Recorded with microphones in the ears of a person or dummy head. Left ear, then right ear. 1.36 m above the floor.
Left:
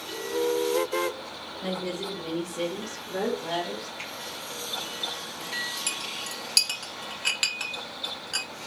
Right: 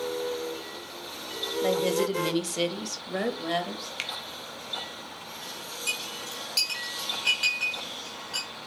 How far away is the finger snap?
About 0.6 m.